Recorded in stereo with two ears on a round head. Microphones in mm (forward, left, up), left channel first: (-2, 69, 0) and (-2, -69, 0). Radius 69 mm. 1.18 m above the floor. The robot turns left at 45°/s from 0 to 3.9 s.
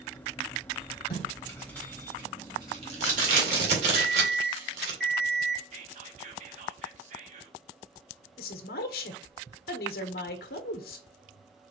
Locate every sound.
1.1 s tape being pulled: 35° left (ahead or behind), 2 m; by 5.0 s 80° right, 2 m
4.0 s an alarm clock: 80° right, 2.5 m
5.7 s whispering: 50° right (ahead or behind), 1.3 m
8.4 s a woman speaking: 70° left (ahead or behind), 1.1 m